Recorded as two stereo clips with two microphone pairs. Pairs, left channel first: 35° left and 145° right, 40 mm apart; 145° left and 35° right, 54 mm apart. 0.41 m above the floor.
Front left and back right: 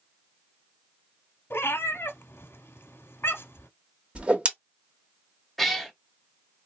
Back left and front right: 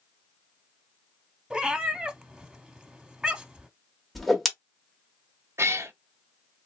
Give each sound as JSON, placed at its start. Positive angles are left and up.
{"t": 1.5, "sound": "a cat meowing", "azimuth_deg": 45, "distance_m": 0.6}
{"t": 4.2, "sound": "a whoosh", "azimuth_deg": -125, "distance_m": 0.9}
{"t": 5.6, "sound": "a cat meowing", "azimuth_deg": -55, "distance_m": 0.6}